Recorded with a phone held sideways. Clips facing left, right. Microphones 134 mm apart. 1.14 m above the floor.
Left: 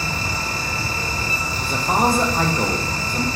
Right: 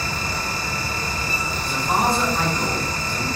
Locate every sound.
0.0 s a fan: 25° left (ahead or behind), 0.9 m
1.6 s a man speaking: 50° left (ahead or behind), 0.5 m